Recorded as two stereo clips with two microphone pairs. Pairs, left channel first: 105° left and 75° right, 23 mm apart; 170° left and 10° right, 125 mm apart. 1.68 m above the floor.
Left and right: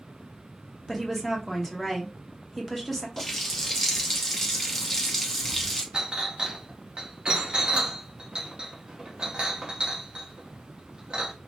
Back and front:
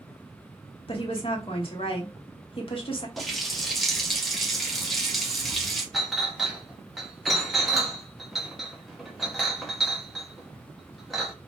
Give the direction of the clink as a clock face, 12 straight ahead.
3 o'clock.